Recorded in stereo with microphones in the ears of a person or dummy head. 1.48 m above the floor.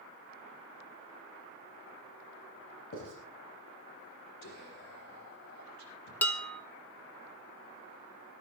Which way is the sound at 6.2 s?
10° left (ahead or behind).